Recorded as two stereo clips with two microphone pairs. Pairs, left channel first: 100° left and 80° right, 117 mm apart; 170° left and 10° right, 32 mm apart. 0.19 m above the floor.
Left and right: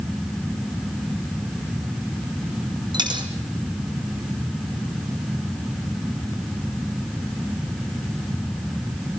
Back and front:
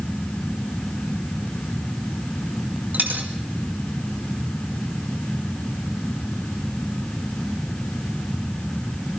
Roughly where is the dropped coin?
Ahead right.